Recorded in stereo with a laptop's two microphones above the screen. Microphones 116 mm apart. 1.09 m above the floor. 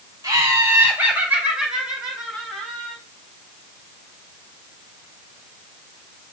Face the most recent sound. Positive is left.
turn(degrees=5)  # may be behind; listen again after turning